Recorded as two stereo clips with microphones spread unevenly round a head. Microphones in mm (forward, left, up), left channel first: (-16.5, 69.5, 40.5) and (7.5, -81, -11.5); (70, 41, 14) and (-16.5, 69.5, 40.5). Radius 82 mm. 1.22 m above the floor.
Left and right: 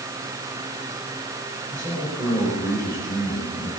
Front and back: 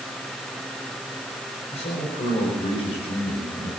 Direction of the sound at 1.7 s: 5° right.